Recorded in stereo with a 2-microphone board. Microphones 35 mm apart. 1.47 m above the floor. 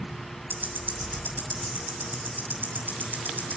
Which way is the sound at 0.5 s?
65° right (ahead or behind).